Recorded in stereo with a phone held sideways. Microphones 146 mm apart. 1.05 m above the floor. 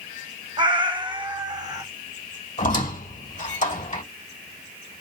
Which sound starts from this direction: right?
A cat meowing, at 0.6 s.